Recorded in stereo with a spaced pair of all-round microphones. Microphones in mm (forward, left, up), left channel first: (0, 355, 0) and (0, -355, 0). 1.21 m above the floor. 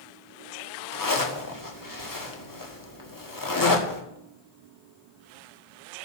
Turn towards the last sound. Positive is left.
turn(degrees=25)  # may be behind; listen again after turning